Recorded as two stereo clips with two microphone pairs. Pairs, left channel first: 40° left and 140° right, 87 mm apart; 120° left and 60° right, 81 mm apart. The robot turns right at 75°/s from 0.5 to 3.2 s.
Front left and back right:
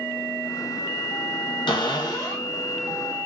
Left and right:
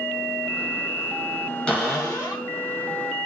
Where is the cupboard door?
45° left, 1.3 m; by 2.5 s 105° left, 1.3 m.